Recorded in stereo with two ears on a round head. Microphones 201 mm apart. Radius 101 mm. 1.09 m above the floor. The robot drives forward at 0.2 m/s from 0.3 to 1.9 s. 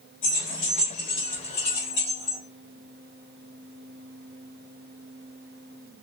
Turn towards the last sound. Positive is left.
turn(degrees=80)